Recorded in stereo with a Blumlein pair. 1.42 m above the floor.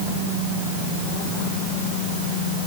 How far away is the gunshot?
I don't hear a gunshot.